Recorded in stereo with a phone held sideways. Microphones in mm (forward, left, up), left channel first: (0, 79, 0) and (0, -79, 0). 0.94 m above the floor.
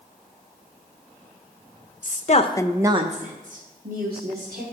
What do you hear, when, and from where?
2.0 s a woman speaking: 60° left (ahead or behind), 1.0 m; by 4.6 s 75° right (ahead or behind), 2.5 m